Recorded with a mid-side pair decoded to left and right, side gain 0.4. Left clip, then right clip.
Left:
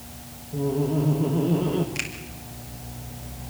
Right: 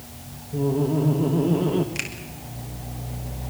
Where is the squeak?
I don't hear a squeak.